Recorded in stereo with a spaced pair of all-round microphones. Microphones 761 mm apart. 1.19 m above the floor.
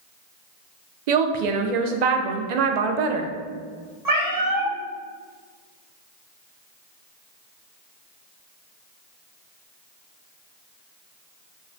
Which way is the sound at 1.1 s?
65° right (ahead or behind).